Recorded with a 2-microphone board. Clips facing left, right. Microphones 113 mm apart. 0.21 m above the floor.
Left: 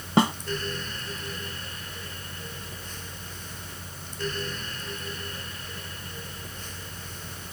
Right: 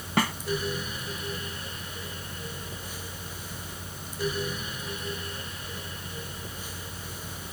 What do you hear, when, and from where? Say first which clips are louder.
0.2 s a snare drum: left 5 dB; 25° left (ahead or behind)